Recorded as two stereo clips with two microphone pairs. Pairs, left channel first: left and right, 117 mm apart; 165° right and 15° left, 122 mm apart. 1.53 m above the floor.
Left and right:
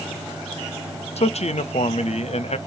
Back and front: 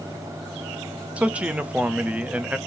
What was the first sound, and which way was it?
A man speaking, 95° left.